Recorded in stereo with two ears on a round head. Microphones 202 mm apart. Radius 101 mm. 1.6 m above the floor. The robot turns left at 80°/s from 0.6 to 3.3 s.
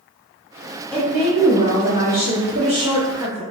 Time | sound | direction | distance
0.9 | a woman speaking | 10° left | 0.8 m